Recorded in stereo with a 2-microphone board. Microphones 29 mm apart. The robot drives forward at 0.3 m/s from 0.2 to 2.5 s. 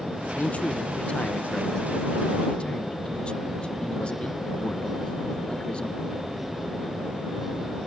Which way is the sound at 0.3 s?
55° left (ahead or behind).